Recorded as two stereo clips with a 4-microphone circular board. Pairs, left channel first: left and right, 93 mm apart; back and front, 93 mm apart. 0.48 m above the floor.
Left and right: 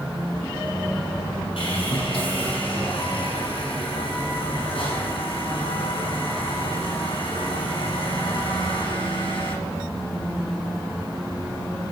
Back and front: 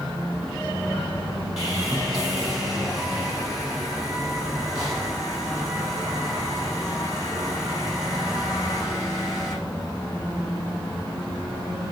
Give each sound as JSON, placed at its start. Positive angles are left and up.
{"t": 1.6, "sound": "sawing", "azimuth_deg": 85, "distance_m": 7.5}